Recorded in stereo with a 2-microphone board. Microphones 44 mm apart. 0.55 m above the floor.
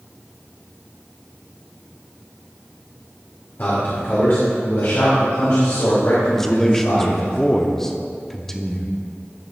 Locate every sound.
3.6 s a man speaking: 45° left (ahead or behind), 1.7 m; by 7.3 s 65° left (ahead or behind), 3 m
6.3 s a man speaking: 10° left (ahead or behind), 0.7 m